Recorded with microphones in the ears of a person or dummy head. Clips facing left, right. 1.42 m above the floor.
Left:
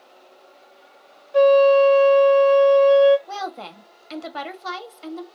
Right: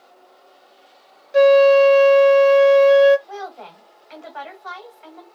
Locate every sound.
1.3 s a flute: 25° right (ahead or behind), 0.5 m
3.3 s a woman speaking: 50° left (ahead or behind), 2 m